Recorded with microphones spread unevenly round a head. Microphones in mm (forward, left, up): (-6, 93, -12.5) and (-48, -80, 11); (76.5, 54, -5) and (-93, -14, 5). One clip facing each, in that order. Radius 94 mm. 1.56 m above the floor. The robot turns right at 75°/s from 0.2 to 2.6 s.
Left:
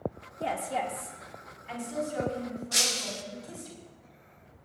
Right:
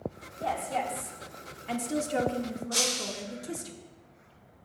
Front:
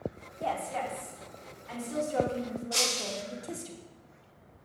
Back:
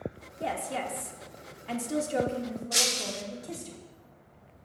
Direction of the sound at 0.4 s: 130° left.